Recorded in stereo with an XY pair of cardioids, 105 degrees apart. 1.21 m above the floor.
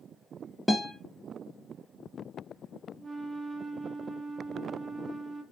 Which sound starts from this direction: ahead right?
A flute, at 3.0 s.